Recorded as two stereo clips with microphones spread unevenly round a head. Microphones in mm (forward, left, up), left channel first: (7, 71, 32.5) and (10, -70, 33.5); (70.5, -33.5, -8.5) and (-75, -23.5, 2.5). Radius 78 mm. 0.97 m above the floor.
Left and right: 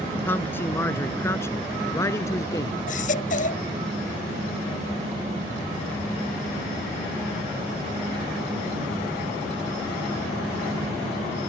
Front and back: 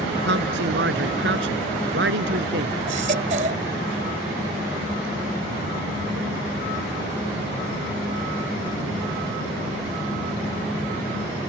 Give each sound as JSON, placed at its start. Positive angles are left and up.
{"t": 0.2, "sound": "a man speaking", "azimuth_deg": 170}
{"t": 2.9, "sound": "a baby crying", "azimuth_deg": 130}